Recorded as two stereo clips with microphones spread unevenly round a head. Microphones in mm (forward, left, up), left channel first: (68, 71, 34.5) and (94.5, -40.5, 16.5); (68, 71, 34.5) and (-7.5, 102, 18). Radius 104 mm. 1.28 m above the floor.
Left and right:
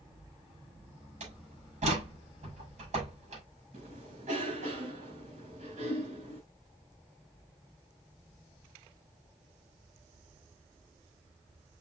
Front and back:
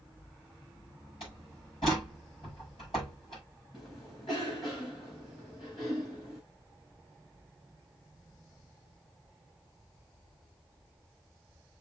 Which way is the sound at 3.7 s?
75° right.